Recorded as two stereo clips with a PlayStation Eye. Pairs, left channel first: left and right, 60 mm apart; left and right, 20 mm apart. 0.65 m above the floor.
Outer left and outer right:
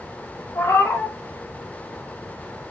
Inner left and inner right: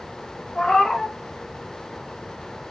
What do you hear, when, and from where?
0.6 s a cat meowing: 45° left (ahead or behind), 0.9 m